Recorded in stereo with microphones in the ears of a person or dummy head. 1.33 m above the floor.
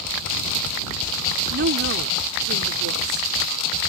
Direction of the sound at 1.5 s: 60° right (ahead or behind).